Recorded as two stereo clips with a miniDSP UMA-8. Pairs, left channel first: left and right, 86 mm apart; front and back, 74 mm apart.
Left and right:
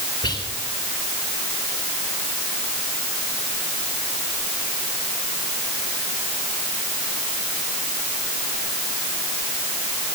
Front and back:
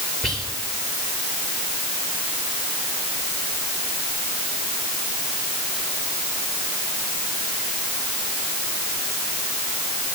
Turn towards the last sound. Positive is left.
turn(degrees=85)